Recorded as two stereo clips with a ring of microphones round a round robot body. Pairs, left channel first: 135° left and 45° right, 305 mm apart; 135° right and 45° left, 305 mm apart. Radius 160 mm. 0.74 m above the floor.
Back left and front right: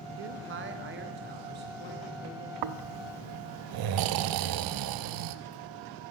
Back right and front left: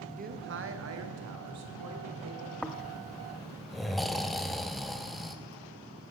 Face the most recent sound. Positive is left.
turn(degrees=-45)